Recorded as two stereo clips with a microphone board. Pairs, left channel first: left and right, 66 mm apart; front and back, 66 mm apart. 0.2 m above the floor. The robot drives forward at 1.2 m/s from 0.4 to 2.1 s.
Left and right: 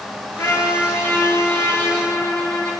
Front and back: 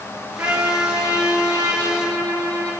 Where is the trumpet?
130° left, 1.6 m; by 2.7 s 160° left, 3.5 m.